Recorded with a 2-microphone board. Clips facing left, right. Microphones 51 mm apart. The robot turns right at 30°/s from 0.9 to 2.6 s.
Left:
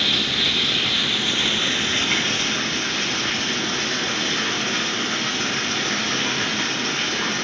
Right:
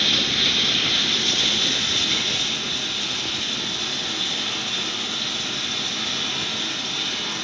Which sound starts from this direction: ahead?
Running water, at 0.0 s.